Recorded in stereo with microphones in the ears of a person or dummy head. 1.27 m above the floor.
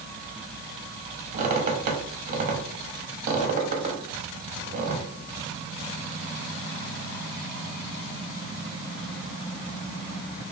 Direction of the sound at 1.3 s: 45° right (ahead or behind).